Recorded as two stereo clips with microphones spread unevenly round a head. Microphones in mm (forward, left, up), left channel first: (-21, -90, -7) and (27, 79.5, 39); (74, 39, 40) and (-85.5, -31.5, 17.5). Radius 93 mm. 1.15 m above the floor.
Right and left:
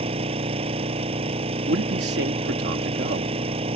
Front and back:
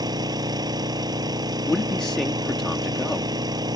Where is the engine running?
135° left.